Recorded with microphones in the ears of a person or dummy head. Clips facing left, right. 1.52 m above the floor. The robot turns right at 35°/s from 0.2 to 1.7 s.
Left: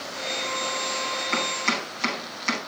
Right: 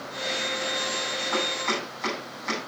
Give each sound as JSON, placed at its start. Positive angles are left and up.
{"t": 1.3, "sound": "chopping", "side_deg": 35, "distance_m": 9.5}